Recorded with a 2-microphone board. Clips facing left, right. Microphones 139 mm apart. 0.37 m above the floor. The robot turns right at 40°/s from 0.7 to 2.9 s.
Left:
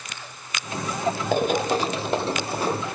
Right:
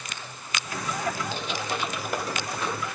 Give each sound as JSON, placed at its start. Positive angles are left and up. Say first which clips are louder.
{"t": 1.3, "sound": "running footsteps", "louder": "left 10 dB", "side_deg": 55, "distance_m": 0.5}